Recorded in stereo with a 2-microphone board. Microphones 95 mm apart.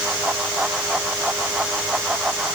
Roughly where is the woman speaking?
No woman speaking in this recording.